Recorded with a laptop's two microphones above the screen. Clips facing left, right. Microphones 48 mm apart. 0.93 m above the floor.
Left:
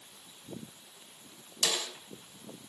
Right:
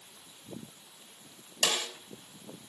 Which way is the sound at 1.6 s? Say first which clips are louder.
Right 2 dB; 50° right (ahead or behind).